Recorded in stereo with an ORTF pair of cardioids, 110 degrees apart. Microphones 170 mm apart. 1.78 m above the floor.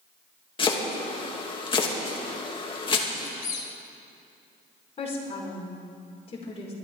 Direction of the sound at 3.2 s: 55° left.